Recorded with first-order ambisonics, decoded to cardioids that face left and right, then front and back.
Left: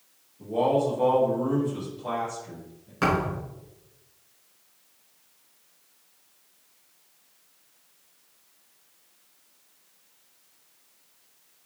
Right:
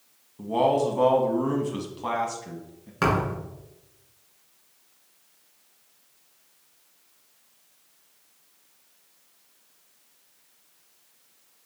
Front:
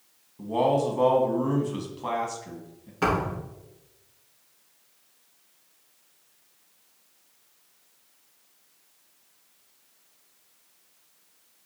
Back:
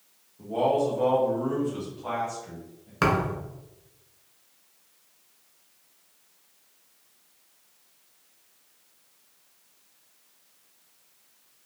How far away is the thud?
About 1.7 m.